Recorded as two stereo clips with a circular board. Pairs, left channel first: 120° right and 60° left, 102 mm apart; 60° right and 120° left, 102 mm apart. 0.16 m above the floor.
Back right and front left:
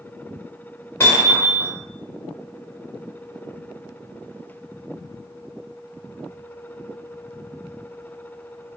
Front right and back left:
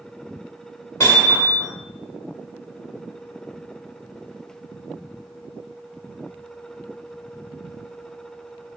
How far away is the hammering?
About 1.5 m.